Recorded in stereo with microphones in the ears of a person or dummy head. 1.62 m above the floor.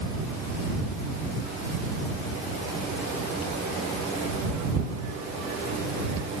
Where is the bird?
No bird in this recording.